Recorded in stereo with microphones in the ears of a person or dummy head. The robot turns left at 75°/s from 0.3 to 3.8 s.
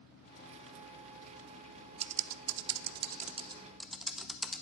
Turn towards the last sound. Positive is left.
turn(degrees=-5)  # may be behind; listen again after turning